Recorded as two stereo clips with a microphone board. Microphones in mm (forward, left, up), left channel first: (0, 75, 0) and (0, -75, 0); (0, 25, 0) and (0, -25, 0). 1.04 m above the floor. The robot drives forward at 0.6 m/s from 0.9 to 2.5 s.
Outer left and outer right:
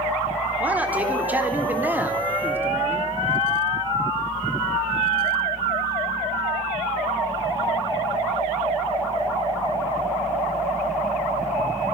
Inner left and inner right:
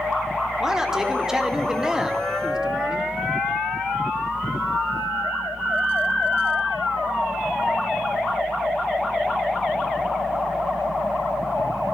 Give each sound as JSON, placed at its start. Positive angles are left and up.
{"t": 0.6, "sound": "a man speaking", "side_deg": -10, "distance_m": 4.0}